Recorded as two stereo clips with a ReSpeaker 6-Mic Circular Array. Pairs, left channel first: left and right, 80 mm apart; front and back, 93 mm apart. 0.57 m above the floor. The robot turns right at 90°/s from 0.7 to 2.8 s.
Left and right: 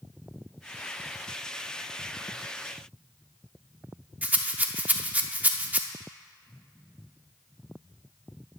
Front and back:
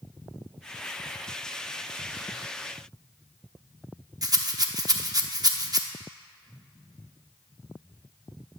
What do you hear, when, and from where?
4.2 s a rattle: 155° right, 0.7 m